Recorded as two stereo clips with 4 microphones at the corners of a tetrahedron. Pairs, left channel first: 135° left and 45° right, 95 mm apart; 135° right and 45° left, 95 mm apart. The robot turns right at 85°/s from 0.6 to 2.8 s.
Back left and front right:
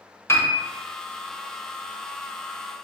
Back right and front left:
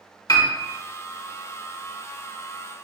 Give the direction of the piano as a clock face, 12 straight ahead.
6 o'clock.